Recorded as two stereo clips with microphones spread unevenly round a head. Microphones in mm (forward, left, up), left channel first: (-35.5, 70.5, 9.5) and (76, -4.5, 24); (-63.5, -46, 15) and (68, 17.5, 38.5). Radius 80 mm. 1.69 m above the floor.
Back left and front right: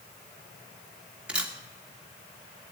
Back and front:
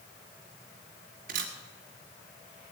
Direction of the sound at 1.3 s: 45° left.